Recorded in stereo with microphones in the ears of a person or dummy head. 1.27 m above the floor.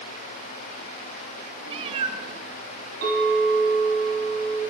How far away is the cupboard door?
No cupboard door in this recording.